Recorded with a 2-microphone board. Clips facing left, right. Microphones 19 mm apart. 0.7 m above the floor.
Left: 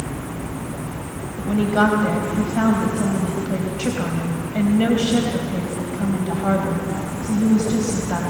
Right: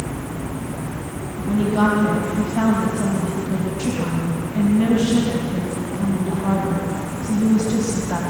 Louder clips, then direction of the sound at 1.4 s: Left 1 dB; 60° left (ahead or behind).